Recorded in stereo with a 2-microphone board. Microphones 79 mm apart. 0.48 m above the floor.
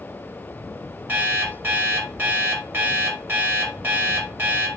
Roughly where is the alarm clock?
Right.